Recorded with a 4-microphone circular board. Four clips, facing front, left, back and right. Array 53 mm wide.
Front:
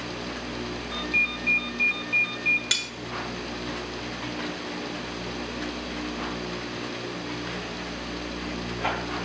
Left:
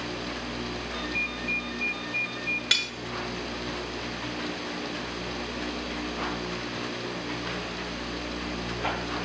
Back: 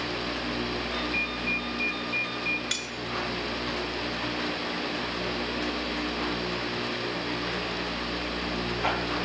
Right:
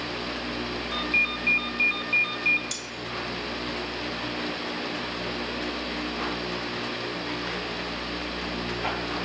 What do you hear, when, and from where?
0.9 s a ringtone: 75° right, 6 m
2.7 s cutlery clinking: 75° left, 2 m